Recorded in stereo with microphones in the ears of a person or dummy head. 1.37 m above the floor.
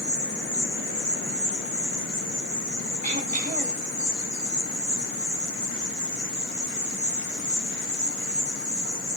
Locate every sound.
0.0 s an insect: 25° right (ahead or behind), 6 m
3.0 s throat clearing: 50° right (ahead or behind), 2 m